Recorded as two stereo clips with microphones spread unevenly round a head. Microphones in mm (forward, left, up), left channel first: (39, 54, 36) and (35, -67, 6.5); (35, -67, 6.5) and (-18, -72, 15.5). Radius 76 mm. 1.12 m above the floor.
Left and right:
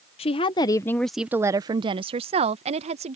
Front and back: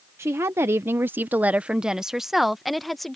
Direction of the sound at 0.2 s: 135° left.